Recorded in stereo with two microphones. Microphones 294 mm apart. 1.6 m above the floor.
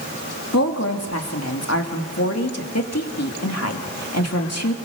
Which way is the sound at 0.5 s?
50° left (ahead or behind).